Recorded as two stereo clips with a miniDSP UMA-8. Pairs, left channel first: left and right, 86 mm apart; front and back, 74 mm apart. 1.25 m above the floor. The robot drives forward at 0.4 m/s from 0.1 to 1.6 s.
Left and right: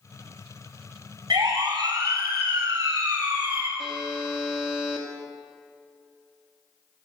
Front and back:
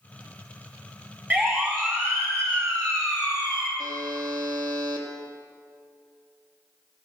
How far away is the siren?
About 4 m.